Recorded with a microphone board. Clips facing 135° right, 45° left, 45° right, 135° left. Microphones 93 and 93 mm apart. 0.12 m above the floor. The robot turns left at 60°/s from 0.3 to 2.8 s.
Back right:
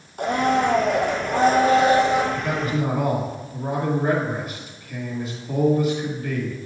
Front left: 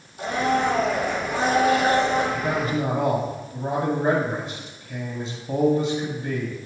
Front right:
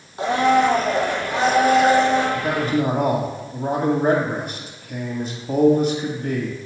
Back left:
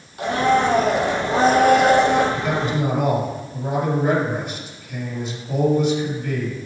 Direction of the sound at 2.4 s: 15° left.